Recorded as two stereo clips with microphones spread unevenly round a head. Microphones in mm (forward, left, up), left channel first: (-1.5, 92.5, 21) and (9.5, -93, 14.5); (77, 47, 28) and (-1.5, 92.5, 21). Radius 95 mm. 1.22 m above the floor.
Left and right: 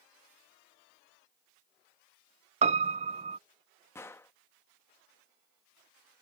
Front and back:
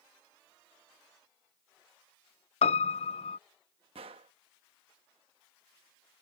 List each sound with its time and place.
2.6 s a piano: 30° right
4.0 s a gunshot: 170° left